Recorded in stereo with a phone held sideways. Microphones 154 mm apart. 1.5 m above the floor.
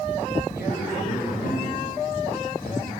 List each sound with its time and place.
0.6 s a man speaking: 85° left, 9.5 m